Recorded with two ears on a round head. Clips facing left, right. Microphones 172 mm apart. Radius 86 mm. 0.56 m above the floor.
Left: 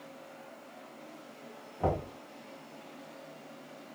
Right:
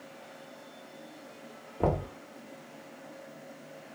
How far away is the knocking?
About 0.9 m.